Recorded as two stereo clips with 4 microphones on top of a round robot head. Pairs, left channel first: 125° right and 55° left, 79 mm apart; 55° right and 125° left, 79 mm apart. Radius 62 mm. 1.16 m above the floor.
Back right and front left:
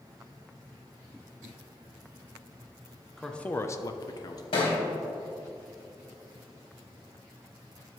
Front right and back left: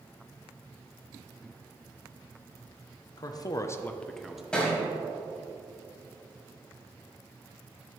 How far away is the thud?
About 3.5 m.